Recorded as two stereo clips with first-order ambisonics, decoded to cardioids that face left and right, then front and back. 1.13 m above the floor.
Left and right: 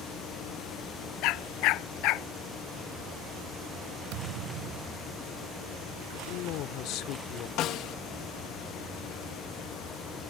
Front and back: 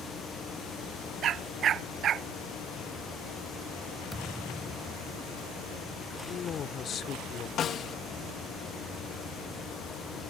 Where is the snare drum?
55° left.